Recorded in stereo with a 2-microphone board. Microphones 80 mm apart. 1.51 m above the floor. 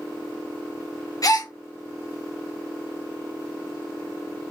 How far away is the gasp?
About 0.7 m.